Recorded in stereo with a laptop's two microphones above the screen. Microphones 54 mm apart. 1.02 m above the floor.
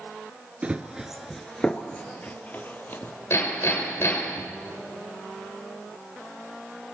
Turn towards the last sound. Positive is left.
turn(degrees=55)  # may be behind; listen again after turning